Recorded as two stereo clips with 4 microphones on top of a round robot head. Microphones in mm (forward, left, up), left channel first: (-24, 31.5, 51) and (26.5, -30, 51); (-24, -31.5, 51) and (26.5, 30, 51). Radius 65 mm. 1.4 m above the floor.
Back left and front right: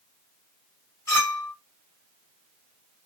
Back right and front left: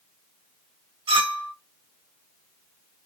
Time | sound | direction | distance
1.1 | a clink | 75° left | 1.6 m